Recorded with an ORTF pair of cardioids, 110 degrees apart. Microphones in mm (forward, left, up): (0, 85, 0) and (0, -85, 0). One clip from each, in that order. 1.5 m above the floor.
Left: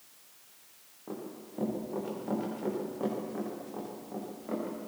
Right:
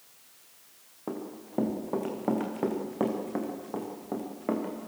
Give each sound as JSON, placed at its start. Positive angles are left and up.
{"t": 1.1, "sound": "running footsteps", "azimuth_deg": -60, "distance_m": 6.5}